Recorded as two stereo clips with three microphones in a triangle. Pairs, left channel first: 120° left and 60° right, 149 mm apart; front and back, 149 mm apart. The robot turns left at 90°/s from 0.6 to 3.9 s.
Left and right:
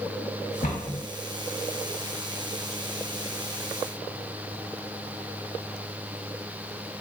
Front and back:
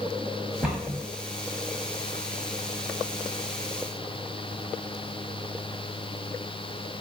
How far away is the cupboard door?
About 1.1 m.